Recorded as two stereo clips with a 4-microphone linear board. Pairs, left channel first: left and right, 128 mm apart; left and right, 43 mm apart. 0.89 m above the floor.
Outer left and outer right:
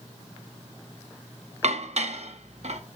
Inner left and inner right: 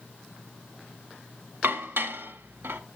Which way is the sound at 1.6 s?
60° right (ahead or behind).